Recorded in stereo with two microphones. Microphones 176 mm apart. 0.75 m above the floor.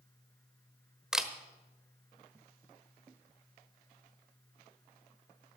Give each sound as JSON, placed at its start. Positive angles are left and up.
{"t": 1.1, "sound": "a camera shutter", "side_deg": -5, "distance_m": 1.2}